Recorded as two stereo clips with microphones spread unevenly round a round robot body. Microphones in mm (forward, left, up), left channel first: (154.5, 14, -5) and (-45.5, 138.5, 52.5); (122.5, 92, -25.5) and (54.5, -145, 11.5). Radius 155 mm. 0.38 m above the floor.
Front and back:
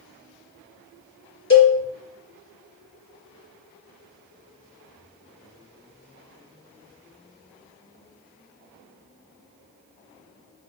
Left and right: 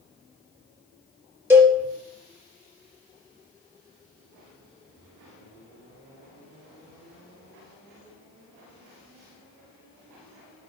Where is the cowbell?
25° right, 3 m.